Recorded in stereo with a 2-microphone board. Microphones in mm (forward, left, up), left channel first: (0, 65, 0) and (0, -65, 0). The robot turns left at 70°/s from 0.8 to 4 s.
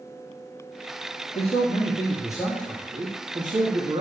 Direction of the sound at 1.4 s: 95° left.